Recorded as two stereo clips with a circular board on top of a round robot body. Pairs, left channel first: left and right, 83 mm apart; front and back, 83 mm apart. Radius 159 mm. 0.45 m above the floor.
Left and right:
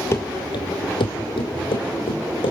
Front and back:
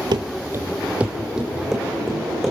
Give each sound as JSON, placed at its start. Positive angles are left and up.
{"t": 0.1, "sound": "running footsteps", "azimuth_deg": 145, "distance_m": 0.7}